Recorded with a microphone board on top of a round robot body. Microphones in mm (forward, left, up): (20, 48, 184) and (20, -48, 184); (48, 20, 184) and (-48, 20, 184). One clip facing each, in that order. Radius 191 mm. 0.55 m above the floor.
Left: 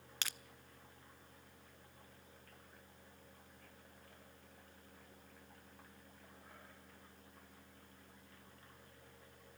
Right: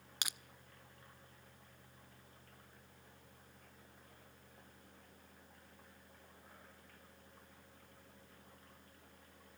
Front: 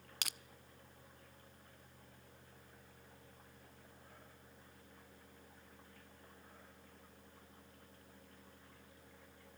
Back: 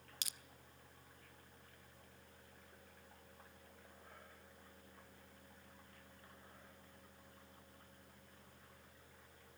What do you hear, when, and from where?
0.2 s crushing: 15° right, 1.0 m